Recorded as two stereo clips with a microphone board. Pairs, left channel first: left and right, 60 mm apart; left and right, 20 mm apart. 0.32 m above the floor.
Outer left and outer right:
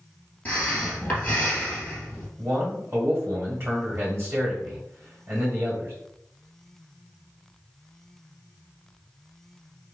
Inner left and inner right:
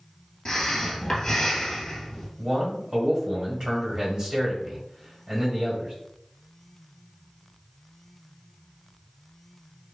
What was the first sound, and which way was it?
Breathing, 20° left (ahead or behind).